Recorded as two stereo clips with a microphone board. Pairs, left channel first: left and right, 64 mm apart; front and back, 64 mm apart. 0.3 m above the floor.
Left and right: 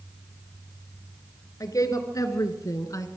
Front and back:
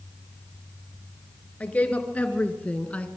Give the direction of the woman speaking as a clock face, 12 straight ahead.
10 o'clock.